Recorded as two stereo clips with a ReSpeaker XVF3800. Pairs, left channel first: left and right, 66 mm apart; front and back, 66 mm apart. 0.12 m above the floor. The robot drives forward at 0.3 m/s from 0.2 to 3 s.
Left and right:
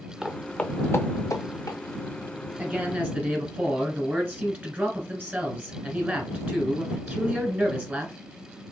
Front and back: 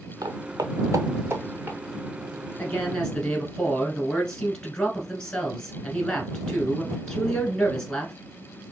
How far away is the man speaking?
About 1.2 m.